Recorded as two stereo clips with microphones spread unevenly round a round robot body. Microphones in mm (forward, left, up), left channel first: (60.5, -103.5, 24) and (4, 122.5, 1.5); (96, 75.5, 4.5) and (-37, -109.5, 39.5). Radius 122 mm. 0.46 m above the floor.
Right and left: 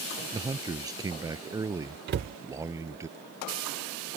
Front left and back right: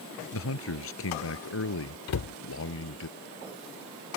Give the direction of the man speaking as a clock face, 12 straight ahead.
11 o'clock.